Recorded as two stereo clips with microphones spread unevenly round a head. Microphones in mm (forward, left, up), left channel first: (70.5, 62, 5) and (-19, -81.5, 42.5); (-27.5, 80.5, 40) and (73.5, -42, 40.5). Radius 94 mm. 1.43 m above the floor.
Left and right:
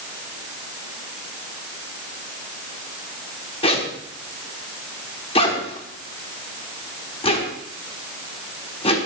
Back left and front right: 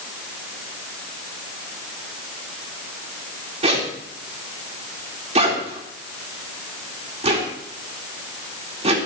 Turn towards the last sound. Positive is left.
turn(degrees=0)